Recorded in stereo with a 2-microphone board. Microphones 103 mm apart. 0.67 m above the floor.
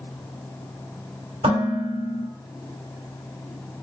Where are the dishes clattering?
80° right, 2.5 m.